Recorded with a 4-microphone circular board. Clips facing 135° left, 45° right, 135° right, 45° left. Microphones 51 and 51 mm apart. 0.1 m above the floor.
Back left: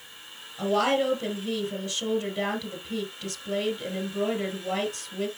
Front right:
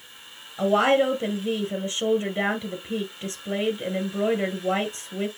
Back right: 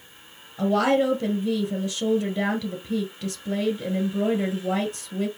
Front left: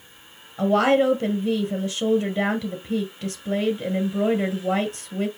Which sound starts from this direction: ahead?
A woman speaking, at 0.6 s.